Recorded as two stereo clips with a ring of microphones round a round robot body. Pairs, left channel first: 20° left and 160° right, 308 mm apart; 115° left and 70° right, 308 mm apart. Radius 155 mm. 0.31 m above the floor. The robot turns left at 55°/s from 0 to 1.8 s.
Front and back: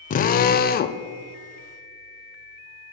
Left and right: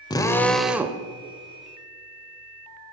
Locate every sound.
0.1 s a drill: 50° left, 0.5 m; by 1.0 s straight ahead, 0.5 m